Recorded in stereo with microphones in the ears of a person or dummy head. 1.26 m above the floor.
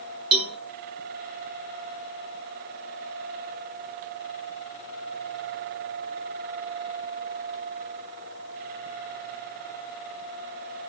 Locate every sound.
0.3 s a cowbell: 25° right (ahead or behind), 1.5 m